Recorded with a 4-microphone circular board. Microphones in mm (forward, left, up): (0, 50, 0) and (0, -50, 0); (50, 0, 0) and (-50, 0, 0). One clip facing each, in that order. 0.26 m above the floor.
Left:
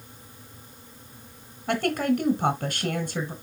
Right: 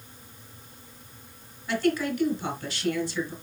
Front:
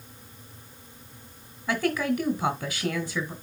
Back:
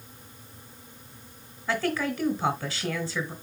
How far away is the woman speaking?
About 2.5 m.